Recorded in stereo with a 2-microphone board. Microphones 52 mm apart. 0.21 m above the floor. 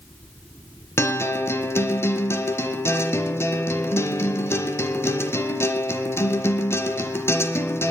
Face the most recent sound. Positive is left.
turn(degrees=55)  # may be behind; listen again after turning